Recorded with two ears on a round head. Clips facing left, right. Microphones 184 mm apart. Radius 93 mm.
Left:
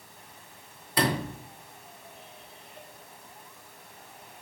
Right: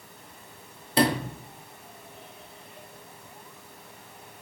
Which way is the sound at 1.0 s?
25° right (ahead or behind).